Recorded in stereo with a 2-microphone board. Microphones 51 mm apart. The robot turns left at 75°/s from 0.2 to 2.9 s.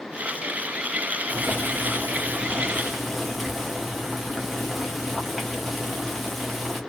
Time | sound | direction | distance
1.3 | boiling | 55° right | 1.3 m